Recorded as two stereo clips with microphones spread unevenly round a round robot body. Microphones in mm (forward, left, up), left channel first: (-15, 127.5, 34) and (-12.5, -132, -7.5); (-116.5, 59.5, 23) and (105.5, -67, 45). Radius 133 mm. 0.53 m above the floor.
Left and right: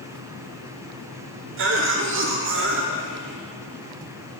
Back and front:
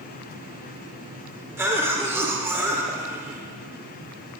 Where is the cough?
115° right, 1.5 m.